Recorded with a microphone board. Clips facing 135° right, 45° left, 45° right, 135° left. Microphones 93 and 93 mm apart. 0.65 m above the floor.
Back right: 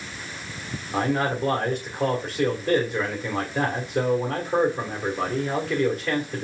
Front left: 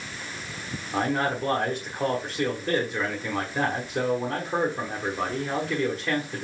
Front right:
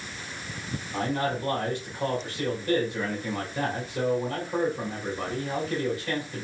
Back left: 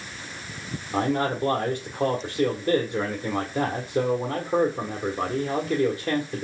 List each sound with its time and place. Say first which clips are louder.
0.9 s a man speaking: back right 2 dB, back left 4 dB; 135° left, 1.5 m